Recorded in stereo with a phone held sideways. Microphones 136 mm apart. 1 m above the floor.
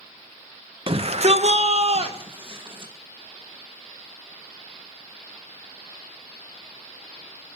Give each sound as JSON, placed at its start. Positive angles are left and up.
{"t": 0.9, "sound": "a shout", "side_deg": -45, "distance_m": 0.7}